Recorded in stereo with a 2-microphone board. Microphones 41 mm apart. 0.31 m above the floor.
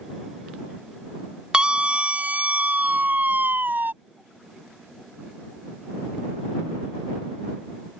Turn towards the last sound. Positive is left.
turn(degrees=-55)  # may be behind; listen again after turning